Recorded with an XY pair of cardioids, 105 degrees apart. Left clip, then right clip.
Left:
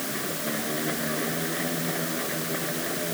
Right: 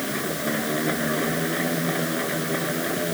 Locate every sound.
0.0 s a machine running: 35° right